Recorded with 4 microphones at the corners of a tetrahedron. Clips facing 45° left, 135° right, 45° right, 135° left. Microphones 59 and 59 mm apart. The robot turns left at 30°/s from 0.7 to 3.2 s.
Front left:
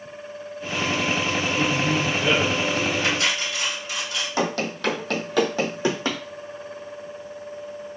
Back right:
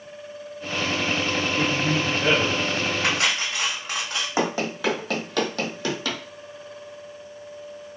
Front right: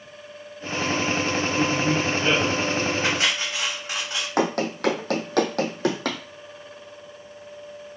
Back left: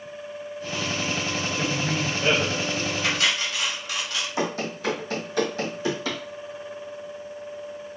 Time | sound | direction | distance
1.6 | a man speaking | 115° right | 1.2 m
3.0 | cutlery clinking | 100° right | 1.3 m
4.4 | running footsteps | 65° right | 1.1 m